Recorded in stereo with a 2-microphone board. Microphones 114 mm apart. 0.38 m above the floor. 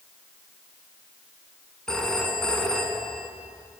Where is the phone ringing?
5° left (ahead or behind), 2.5 m.